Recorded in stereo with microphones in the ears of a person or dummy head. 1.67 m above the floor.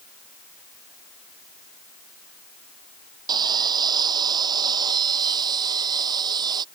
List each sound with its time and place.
3.3 s sawing: 30° right (ahead or behind)